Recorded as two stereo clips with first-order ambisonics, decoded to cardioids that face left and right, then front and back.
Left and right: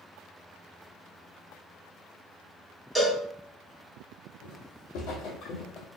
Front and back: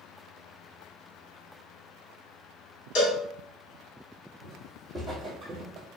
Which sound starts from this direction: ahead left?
Footsteps, at 4.4 s.